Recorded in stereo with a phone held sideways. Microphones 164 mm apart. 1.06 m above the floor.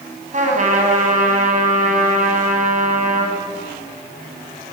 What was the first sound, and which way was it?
A trumpet, 50° right (ahead or behind).